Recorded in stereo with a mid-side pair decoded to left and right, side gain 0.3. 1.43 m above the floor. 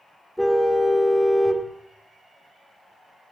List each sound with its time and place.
0.4 s a car horn: 5° left, 2.5 m